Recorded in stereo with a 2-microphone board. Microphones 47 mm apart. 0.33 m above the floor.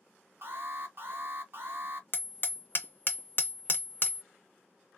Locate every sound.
0.4 s an alarm: 50° right (ahead or behind), 1.4 m
2.1 s hammering: 50° left (ahead or behind), 0.5 m